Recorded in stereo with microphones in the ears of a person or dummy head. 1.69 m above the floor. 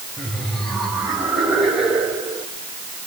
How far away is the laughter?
About 8.5 m.